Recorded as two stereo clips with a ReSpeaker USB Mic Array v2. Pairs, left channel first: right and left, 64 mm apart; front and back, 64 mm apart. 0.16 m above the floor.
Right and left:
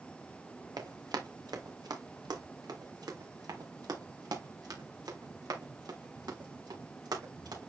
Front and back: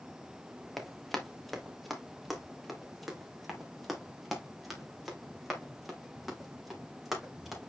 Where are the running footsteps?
90° left, 2.5 m.